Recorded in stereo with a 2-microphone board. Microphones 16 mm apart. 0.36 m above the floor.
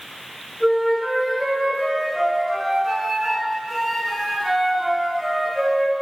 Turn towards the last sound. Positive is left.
turn(degrees=-5)  # may be behind; listen again after turning